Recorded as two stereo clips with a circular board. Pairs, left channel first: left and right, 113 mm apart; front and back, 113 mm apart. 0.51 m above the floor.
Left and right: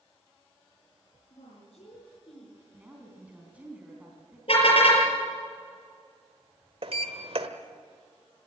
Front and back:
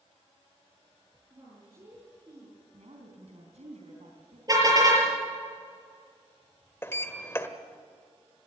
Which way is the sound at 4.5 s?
125° left.